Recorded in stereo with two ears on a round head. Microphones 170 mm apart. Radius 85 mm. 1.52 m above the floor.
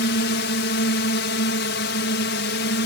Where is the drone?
65° left (ahead or behind).